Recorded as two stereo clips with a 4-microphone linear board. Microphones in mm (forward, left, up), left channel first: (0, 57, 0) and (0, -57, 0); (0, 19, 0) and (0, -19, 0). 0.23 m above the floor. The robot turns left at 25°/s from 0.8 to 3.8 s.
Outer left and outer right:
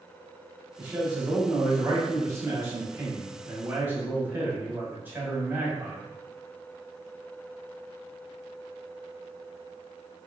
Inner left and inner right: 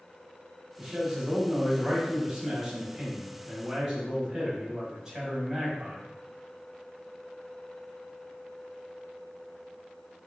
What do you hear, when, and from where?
0.8 s a man speaking: 20° right (ahead or behind), 1.0 m